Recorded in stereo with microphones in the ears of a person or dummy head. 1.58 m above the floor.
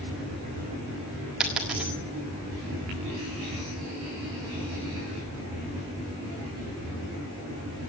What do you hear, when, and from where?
1.4 s a dropped coin: 5° right (ahead or behind), 0.9 m